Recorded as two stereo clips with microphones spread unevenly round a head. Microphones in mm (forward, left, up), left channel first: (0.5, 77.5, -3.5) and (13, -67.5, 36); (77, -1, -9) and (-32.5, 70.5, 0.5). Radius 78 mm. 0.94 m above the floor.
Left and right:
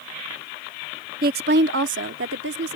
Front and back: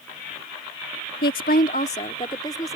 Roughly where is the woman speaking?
Ahead right.